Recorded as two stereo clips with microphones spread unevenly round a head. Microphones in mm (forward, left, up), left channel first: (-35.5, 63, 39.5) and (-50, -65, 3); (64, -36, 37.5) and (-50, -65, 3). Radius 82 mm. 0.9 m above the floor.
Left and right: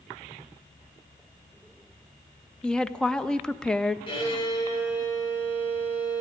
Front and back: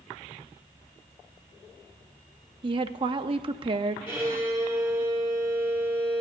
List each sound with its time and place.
2.6 s a woman speaking: 175° left, 0.6 m
4.1 s a violin: 125° left, 3.5 m